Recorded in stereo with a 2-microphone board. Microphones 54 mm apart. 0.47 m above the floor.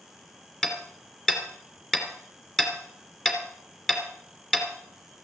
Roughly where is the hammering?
Centre.